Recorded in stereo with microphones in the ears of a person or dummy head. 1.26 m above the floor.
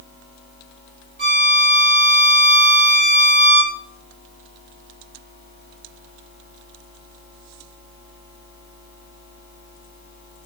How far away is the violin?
About 4 m.